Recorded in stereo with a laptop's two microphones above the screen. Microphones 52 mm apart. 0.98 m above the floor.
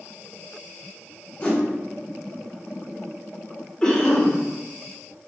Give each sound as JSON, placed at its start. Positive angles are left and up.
{"t": 1.4, "sound": "a whoosh", "side_deg": 30, "distance_m": 1.1}
{"t": 3.8, "sound": "a cough", "side_deg": 15, "distance_m": 0.8}